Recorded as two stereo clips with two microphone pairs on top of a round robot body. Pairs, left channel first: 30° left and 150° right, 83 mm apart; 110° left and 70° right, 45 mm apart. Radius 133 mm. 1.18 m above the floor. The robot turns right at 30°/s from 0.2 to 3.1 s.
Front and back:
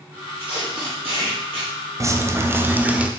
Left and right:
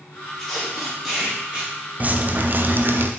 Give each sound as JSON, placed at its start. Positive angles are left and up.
{"t": 0.4, "sound": "tape being pulled", "azimuth_deg": -175, "distance_m": 0.9}
{"t": 2.0, "sound": "dripping", "azimuth_deg": -110, "distance_m": 0.5}